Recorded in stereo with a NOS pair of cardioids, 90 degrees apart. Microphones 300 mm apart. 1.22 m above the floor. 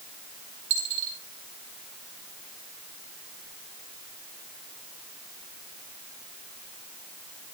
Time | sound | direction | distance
0.7 | a dropped coin | 65° right | 4 m